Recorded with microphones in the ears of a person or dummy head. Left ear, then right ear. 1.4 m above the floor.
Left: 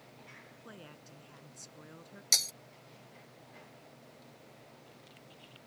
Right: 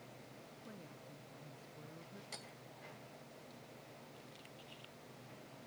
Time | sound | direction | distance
0.7 | a woman speaking | 70° left (ahead or behind) | ?
2.3 | breaking glass | 70° left (ahead or behind) | ?